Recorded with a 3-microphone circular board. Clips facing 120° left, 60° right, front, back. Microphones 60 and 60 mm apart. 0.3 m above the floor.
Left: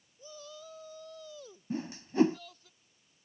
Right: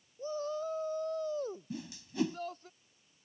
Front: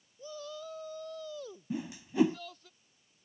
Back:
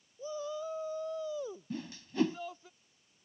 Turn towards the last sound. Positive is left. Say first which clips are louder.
# left 7 dB, front 4 dB
turn(degrees=75)